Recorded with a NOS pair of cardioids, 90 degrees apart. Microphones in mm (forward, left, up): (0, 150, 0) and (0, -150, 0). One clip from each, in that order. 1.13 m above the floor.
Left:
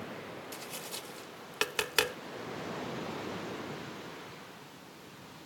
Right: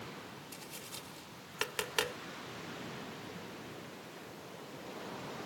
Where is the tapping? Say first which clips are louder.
Left 5 dB; 30° left.